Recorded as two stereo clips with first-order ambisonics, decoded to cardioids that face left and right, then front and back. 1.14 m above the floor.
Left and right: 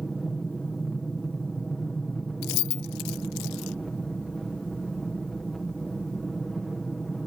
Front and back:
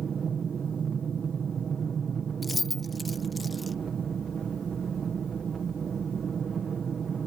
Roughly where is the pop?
I don't hear a pop.